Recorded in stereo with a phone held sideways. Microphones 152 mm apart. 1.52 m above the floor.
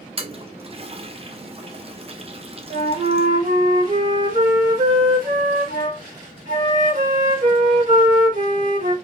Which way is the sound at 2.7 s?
60° right (ahead or behind).